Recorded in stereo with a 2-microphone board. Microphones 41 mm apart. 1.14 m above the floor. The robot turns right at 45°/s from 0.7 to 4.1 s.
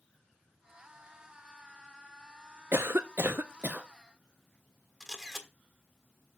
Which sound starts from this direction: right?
A cough, at 2.7 s.